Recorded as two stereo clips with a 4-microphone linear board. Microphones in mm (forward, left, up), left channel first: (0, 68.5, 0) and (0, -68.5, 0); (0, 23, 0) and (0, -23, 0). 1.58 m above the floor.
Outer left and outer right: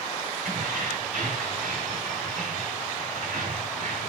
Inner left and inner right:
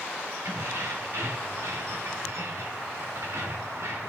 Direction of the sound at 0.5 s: 75° right (ahead or behind).